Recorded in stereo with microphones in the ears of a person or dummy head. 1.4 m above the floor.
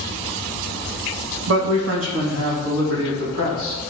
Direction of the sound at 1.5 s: 85° right.